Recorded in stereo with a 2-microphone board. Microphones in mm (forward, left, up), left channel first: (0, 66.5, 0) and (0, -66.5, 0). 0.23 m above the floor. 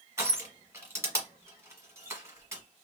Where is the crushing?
20° right (ahead or behind), 1.1 m.